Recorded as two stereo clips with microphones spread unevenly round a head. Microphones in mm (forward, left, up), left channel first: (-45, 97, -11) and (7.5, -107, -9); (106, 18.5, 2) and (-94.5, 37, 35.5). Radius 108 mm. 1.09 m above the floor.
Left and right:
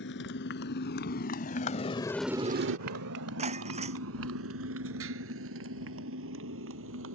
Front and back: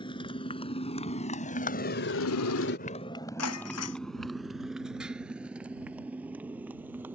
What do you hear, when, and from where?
0.0 s a motorcycle: 65° left; by 7.2 s 105° right
3.4 s breaking glass: 15° right